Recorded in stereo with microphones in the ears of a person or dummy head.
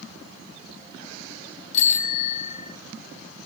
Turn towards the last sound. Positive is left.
turn(degrees=50)  # may be behind; listen again after turning